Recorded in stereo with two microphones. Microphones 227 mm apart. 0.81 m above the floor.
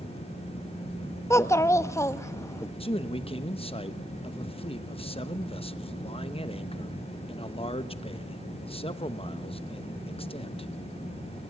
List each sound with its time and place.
1.3 s a child speaking: 10° left (ahead or behind), 0.8 m
2.8 s a man speaking: 25° left (ahead or behind), 1.0 m